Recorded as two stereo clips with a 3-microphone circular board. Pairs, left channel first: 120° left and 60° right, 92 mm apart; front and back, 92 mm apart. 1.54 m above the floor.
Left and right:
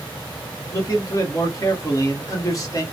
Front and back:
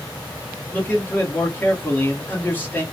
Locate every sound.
0.7 s a man speaking: 70° left, 1.3 m